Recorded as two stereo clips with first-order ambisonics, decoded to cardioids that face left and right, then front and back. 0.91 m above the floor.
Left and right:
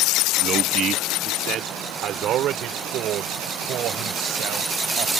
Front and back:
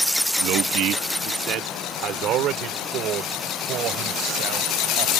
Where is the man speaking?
150° right; by 5.1 s 135° right.